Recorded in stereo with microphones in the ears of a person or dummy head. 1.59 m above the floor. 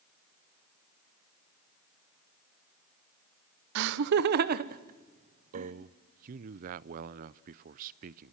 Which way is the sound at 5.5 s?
45° right (ahead or behind).